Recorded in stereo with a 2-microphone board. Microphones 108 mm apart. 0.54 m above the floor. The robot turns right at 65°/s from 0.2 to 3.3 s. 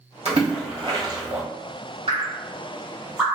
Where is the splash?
80° right, 1.3 m; by 1.4 s 20° right (ahead or behind), 1.3 m.